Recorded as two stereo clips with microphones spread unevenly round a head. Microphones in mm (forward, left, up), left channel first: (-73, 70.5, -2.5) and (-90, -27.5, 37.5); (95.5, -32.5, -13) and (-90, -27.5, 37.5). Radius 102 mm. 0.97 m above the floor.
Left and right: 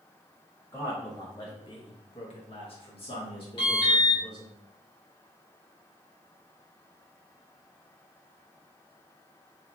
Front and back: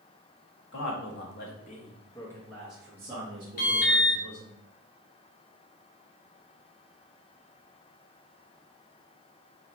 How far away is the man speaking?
About 1.0 m.